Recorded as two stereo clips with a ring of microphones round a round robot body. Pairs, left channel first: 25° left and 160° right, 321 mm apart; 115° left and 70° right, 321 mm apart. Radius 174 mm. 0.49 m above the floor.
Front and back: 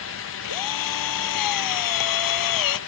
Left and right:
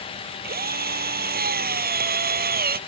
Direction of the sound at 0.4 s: 5° right.